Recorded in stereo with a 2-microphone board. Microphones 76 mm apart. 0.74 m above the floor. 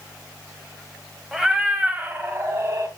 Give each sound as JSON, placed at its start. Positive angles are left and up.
{"t": 1.3, "sound": "a cat meowing", "side_deg": -5, "distance_m": 1.8}